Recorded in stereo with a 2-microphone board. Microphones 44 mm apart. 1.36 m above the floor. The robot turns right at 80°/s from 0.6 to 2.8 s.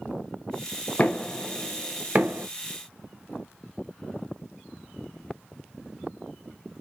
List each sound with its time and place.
1.0 s knocking: 30° left (ahead or behind), 0.6 m; by 2.5 s 55° right (ahead or behind), 0.6 m